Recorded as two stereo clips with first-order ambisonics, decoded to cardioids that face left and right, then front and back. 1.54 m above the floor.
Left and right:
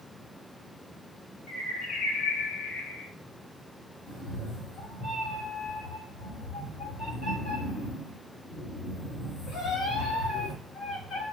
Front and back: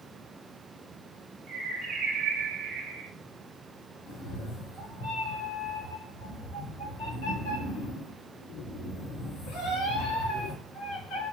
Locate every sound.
1.5 s a bird: 130° left, 1.0 m
4.1 s a cat meowing: 15° left, 2.5 m